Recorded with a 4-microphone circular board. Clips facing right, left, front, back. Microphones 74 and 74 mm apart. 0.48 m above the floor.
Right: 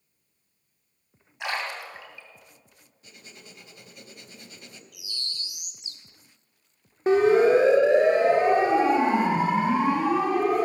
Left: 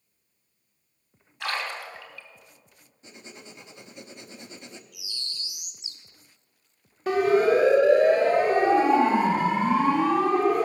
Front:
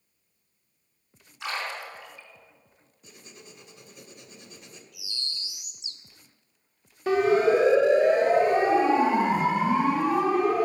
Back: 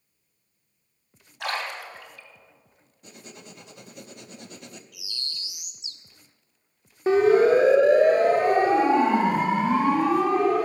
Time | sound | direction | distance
1.4 | a splash | 160° right | 2.5 m
3.0 | writing | 155° left | 0.8 m
4.9 | a bird | 55° right | 1.1 m
7.1 | a siren | 135° right | 2 m